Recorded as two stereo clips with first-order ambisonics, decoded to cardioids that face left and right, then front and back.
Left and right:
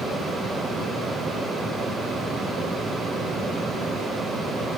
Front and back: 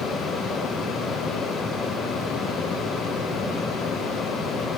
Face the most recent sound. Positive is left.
No sound to turn to.